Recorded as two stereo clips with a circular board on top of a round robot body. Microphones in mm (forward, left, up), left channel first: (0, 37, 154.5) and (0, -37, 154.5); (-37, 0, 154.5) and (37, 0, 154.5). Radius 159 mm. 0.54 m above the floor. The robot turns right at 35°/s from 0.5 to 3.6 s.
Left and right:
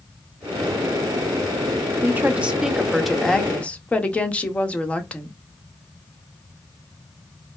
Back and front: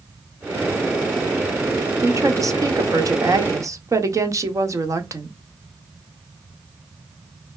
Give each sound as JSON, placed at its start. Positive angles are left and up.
{"t": 2.0, "sound": "a woman speaking", "azimuth_deg": -35, "distance_m": 1.2}